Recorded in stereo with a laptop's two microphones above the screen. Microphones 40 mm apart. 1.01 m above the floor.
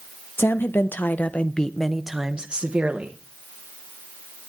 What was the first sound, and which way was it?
A woman speaking, 65° left (ahead or behind).